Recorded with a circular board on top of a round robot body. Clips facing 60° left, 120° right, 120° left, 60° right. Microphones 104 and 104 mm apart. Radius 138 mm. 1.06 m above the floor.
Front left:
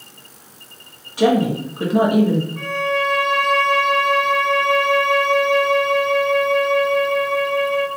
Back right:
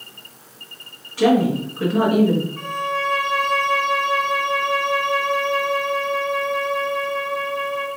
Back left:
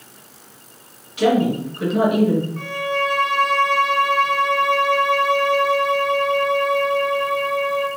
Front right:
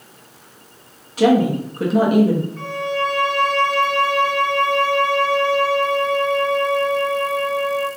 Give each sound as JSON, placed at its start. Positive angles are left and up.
{"t": 1.2, "sound": "a woman speaking", "azimuth_deg": -10, "distance_m": 1.1}
{"t": 2.6, "sound": "a violin", "azimuth_deg": 90, "distance_m": 1.4}